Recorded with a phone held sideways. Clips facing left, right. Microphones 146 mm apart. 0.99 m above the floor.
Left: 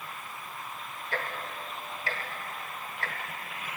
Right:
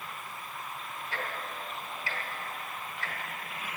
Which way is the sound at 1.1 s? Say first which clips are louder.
Left 3 dB; 50° left (ahead or behind).